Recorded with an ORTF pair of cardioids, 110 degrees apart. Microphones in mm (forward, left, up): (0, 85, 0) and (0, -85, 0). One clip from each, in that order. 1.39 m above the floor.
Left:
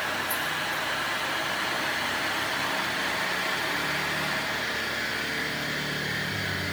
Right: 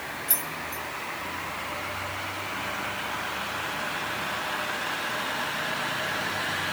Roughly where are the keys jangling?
Ahead right.